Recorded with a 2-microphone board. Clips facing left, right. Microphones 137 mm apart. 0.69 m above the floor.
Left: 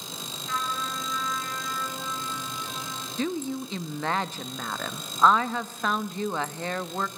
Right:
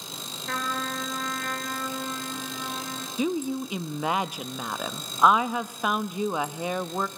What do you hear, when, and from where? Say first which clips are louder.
0.5 s a trumpet: right 1 dB; 65° right (ahead or behind), 2 m
3.2 s a woman speaking: right 2 dB; 10° right (ahead or behind), 0.5 m